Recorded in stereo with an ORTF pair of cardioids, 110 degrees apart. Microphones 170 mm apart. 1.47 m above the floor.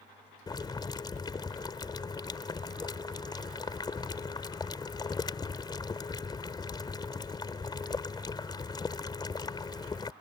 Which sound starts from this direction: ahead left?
Boiling, at 0.5 s.